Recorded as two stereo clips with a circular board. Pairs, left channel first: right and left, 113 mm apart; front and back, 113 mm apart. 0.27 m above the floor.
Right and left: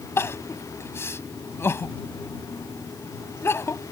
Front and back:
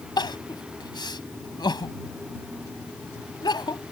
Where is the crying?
30° right.